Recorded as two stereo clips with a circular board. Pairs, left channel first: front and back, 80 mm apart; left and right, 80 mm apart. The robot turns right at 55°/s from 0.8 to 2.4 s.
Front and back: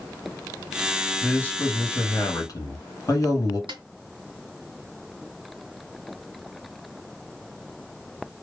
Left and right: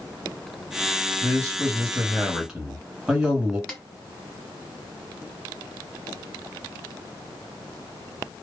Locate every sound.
1.2 s a man speaking: 75° right, 1.7 m; by 3.6 s 10° right, 1.7 m
3.7 s a snare drum: 175° left, 1.6 m